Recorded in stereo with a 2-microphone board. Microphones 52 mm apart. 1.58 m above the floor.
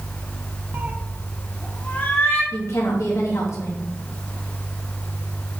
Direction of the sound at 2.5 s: 70° left (ahead or behind).